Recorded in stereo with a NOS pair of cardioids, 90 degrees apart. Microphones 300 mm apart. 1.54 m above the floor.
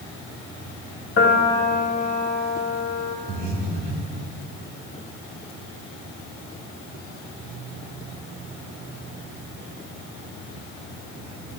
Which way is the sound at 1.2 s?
40° left.